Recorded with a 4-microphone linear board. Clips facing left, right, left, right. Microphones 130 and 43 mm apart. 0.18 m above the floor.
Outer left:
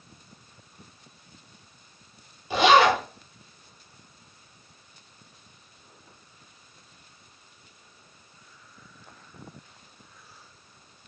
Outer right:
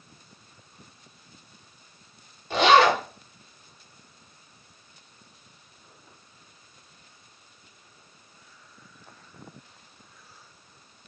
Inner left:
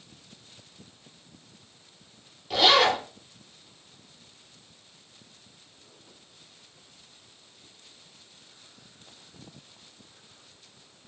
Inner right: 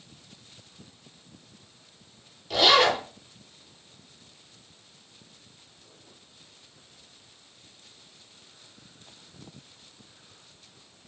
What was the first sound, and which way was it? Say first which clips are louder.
A zipper: even, even; 5° left (ahead or behind).